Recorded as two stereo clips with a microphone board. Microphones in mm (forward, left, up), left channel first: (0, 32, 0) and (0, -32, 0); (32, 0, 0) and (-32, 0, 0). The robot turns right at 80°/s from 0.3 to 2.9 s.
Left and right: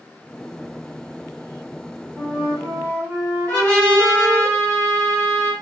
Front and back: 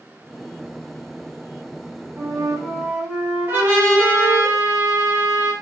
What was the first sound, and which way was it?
A flute, 170° right.